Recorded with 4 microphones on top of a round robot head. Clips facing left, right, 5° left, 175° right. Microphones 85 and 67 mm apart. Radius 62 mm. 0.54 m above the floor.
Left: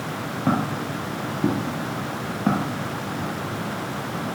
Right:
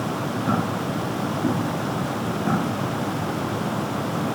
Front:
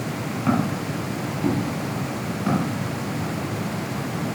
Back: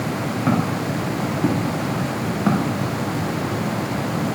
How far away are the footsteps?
About 4 m.